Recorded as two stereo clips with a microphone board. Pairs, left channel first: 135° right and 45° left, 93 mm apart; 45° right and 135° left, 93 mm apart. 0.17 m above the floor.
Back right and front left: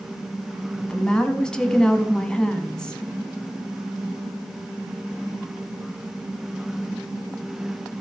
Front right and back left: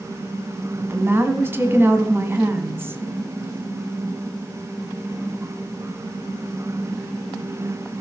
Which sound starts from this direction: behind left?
A woman speaking, at 0.8 s.